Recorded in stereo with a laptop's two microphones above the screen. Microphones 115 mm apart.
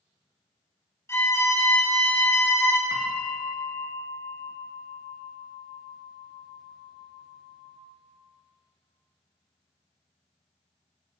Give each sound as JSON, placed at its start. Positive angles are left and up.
{"t": 1.1, "sound": "a violin", "side_deg": 25, "distance_m": 0.7}
{"t": 2.9, "sound": "a bell", "side_deg": 5, "distance_m": 1.3}